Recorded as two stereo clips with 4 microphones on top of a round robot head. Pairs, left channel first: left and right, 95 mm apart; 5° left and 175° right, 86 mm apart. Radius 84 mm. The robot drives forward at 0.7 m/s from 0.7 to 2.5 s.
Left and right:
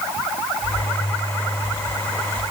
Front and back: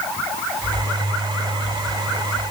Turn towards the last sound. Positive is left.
No sound to turn to.